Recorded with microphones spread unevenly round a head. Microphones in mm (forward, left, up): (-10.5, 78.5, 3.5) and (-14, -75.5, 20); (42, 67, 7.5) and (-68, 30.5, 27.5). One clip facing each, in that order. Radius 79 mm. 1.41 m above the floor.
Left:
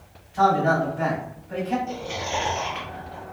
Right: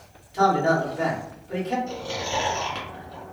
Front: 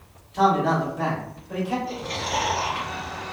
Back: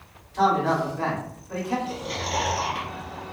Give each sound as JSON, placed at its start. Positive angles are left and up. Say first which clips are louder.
{"t": 0.3, "sound": "a man speaking", "louder": "even, front 1 dB", "azimuth_deg": -55, "distance_m": 1.6}
{"t": 1.9, "sound": "chewing", "louder": "even, front 1 dB", "azimuth_deg": -105, "distance_m": 1.4}